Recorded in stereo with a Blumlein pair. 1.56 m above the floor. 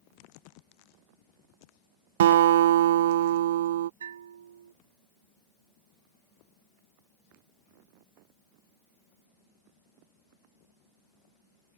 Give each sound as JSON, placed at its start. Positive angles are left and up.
{"t": 2.2, "sound": "a guitar", "azimuth_deg": -60}
{"t": 4.0, "sound": "a bell", "azimuth_deg": -65}